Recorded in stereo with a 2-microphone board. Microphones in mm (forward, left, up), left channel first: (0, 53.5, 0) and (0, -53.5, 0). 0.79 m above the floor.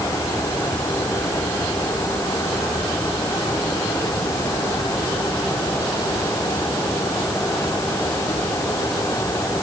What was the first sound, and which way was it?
Only background noise.